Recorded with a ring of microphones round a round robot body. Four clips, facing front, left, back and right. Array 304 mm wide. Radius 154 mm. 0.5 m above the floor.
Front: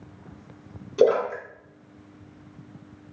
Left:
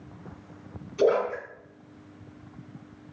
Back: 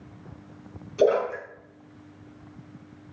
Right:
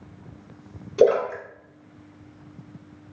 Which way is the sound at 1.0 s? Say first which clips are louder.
Right 4 dB, front 2 dB; 55° right.